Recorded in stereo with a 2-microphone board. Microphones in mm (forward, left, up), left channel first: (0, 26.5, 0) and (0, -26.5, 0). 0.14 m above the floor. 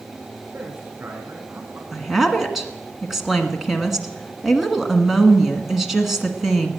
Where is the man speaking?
45° right (ahead or behind), 7.5 m; by 1.8 s 50° right (ahead or behind), 6.5 m.